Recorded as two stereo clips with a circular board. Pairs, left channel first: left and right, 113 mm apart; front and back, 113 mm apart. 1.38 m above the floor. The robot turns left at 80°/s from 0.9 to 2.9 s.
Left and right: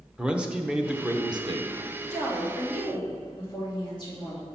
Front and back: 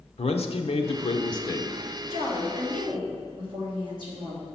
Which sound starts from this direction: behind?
A woman speaking, at 2.1 s.